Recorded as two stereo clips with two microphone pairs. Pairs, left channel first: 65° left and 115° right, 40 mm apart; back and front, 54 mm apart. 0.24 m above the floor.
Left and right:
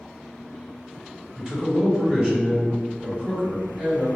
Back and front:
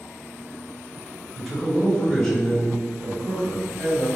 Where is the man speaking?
100° right, 1.6 m.